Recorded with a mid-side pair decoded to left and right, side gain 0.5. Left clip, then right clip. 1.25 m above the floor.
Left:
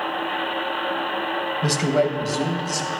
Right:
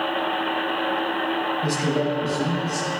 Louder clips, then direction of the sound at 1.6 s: Left 3 dB; 60° left.